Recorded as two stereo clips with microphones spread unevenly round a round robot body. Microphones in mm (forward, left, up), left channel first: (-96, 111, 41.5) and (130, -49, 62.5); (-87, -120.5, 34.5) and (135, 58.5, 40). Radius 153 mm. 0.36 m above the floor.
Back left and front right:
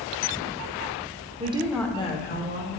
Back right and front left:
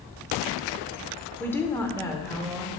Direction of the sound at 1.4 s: 70° right.